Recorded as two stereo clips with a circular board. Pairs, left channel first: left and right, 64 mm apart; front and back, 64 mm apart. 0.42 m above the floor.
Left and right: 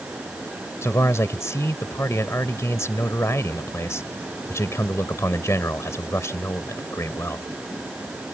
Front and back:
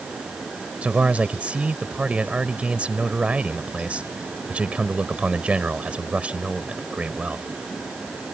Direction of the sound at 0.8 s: 115° left.